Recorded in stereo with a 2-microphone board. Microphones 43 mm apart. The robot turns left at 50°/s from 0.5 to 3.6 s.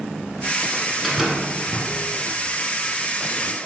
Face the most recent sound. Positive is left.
turn(degrees=-130)